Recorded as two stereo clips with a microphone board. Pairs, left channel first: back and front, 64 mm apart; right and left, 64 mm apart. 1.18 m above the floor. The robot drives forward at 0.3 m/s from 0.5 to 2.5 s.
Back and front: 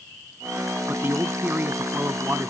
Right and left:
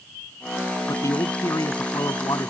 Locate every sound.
0.9 s a man speaking: 60° right